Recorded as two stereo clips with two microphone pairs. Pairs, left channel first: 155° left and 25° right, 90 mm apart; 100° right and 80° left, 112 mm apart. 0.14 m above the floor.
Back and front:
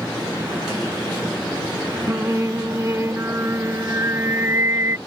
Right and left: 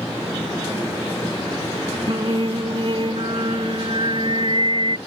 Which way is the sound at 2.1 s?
40° left.